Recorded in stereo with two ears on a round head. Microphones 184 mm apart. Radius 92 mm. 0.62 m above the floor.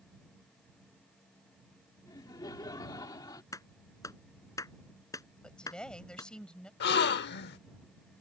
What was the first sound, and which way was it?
Laughter, 20° left (ahead or behind).